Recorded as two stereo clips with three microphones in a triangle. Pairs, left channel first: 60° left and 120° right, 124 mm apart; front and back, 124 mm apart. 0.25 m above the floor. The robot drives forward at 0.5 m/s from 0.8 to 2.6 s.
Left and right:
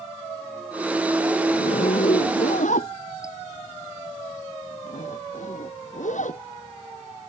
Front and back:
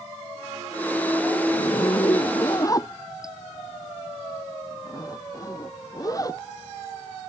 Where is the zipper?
55° left; by 6.4 s 60° left.